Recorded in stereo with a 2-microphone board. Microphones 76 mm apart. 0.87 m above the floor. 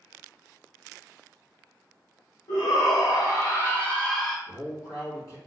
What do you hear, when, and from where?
2.5 s a shout: 55° left (ahead or behind), 1.5 m; by 4.4 s 5° right (ahead or behind), 0.9 m
4.5 s a man speaking: 50° left (ahead or behind), 1.4 m